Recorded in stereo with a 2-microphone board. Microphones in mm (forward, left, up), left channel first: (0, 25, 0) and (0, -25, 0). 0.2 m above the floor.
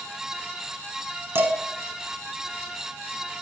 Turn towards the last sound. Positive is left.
turn(degrees=-55)  # may be behind; listen again after turning